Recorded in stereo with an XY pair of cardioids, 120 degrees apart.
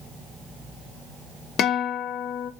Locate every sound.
1.6 s a guitar: 65° left, 0.8 m